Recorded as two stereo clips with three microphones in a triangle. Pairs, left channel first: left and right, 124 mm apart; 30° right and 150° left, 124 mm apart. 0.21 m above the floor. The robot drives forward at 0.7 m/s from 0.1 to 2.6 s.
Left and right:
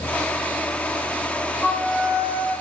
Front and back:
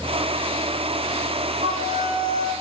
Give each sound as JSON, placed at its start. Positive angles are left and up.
{"t": 1.6, "sound": "a flute", "azimuth_deg": 165, "distance_m": 9.0}